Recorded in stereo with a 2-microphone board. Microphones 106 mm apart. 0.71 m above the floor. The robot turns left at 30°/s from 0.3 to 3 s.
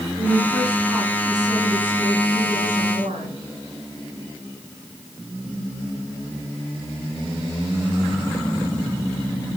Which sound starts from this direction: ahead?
A woman speaking, at 0.2 s.